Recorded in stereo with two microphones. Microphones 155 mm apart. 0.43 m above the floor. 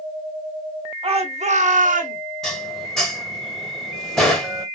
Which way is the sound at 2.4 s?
Centre (ahead or behind).